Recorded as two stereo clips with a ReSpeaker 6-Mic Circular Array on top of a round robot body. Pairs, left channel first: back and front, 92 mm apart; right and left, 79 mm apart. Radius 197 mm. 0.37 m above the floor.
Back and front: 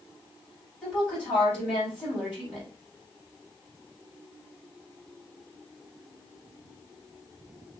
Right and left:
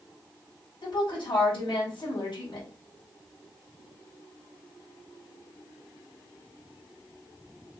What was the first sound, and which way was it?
A woman speaking, 100° right.